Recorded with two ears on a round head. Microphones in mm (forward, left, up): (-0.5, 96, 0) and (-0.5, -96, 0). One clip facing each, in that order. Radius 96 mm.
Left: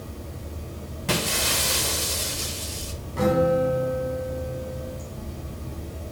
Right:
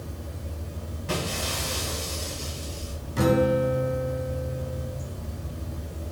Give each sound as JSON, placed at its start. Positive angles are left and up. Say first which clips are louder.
{"t": 0.0, "sound": "running water", "louder": "left 1 dB", "side_deg": 0, "distance_m": 2.5}
{"t": 1.1, "sound": "breaking glass", "louder": "left 3 dB", "side_deg": 70, "distance_m": 0.6}
{"t": 3.2, "sound": "a guitar", "louder": "left 1 dB", "side_deg": -45, "distance_m": 0.7}